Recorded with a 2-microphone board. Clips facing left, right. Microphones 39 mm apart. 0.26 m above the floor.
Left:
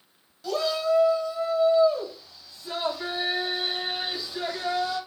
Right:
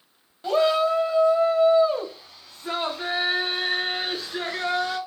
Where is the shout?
35° right (ahead or behind), 1.2 m; by 5.0 s 60° right (ahead or behind), 3.5 m.